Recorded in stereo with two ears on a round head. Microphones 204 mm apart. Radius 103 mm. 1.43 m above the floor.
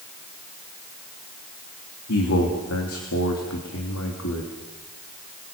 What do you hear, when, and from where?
2.1 s a man speaking: 65° left (ahead or behind), 3 m